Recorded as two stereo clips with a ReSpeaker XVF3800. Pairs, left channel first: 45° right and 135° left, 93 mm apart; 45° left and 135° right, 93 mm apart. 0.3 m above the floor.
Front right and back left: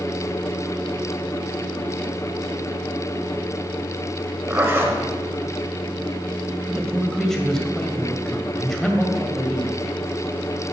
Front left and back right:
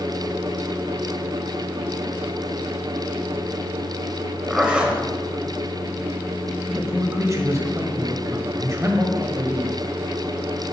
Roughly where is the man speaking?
Behind right.